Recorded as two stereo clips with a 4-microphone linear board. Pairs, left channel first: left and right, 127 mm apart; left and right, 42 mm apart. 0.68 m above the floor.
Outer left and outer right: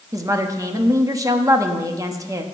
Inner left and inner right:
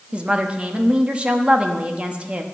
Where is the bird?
No bird in this recording.